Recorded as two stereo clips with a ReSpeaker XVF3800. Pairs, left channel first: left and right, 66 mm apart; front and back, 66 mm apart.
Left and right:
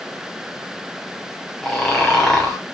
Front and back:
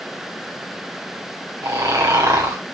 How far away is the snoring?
About 3 m.